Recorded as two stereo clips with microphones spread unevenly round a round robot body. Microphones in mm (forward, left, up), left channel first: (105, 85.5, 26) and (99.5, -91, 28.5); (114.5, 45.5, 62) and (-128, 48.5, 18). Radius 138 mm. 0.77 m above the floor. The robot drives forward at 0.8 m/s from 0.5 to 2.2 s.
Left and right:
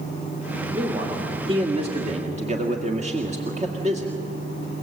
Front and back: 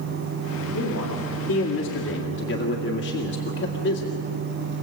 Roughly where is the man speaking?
Ahead right.